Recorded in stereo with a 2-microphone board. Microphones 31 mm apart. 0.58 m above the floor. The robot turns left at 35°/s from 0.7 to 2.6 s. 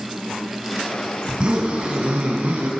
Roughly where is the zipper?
Ahead right.